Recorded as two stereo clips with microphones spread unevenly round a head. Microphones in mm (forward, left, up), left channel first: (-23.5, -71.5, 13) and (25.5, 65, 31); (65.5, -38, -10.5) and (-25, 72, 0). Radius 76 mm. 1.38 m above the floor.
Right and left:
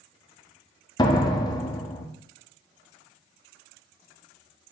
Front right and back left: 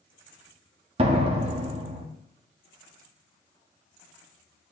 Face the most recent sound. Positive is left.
turn(degrees=-175)